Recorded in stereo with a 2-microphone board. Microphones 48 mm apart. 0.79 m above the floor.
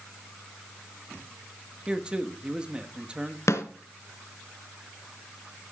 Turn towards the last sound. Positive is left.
turn(degrees=80)